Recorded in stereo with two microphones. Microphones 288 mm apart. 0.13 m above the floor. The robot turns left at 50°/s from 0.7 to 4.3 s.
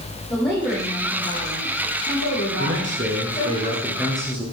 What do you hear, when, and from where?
0.3 s a woman speaking: 170° left, 5.5 m; by 3.6 s 25° left, 5.5 m
2.6 s a man speaking: 105° right, 2 m; by 4.5 s 170° left, 2 m